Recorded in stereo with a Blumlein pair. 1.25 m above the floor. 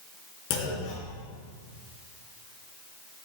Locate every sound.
0.5 s a clunk: 45° left, 5 m